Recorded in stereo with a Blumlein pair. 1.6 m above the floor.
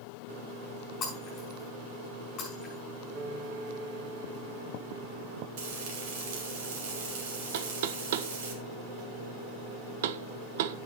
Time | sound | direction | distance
1.0 | breaking glass | 30° left | 5.5 m
3.1 | a piano | 35° right | 1.6 m
5.6 | frying | 50° right | 3 m
7.5 | knocking | 55° right | 0.6 m